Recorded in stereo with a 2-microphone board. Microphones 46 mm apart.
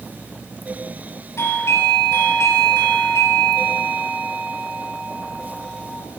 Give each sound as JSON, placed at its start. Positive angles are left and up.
{"t": 1.4, "sound": "a doorbell", "side_deg": 65, "distance_m": 4.5}